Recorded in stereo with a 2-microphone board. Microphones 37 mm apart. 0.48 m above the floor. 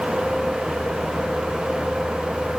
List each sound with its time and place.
Only background noise.